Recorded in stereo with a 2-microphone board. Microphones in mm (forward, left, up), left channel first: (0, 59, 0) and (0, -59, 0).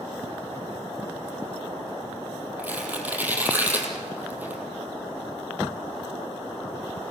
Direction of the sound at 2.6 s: 15° right (ahead or behind).